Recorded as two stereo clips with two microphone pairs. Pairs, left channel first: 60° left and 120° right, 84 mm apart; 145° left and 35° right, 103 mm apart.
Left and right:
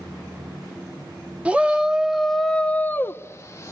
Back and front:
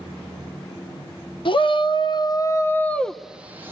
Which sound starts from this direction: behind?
A shout, at 1.4 s.